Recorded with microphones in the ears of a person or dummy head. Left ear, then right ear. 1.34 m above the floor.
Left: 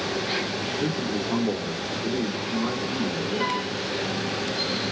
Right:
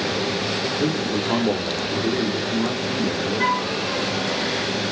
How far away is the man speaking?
About 6 m.